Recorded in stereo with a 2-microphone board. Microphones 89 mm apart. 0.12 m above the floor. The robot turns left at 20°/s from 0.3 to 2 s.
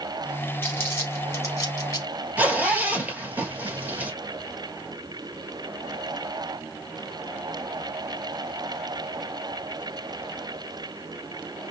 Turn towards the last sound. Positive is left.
turn(degrees=-15)  # may be behind; listen again after turning